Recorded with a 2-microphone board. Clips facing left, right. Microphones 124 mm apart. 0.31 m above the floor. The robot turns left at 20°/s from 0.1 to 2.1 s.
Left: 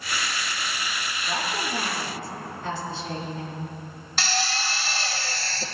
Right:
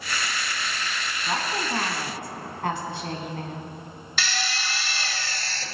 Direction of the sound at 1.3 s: 65° right (ahead or behind).